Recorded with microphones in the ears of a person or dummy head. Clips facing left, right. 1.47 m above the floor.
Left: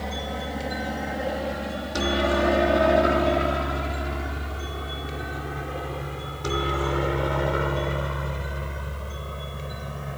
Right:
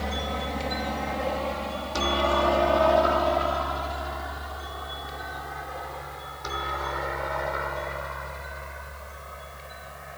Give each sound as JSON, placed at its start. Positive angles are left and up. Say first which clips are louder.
{"t": 0.0, "sound": "a helicopter", "louder": "even", "side_deg": 0}